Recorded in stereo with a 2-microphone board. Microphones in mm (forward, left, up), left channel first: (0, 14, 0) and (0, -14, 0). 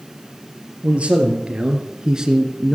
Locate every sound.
0.8 s a man speaking: 45° right (ahead or behind), 3.5 m; by 2.8 s 5° right (ahead or behind), 1.6 m